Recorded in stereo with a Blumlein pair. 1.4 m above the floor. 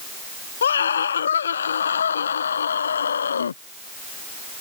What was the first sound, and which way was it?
A scream, 65° left.